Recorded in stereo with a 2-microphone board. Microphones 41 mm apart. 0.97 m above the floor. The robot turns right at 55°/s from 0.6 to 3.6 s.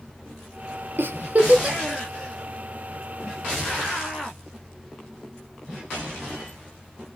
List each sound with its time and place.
1.0 s a giggle: 60° right (ahead or behind), 0.7 m; by 1.8 s 20° right (ahead or behind), 0.7 m